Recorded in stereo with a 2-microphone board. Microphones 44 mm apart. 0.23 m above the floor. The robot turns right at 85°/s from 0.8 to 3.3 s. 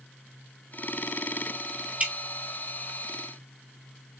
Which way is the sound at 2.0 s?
35° right (ahead or behind).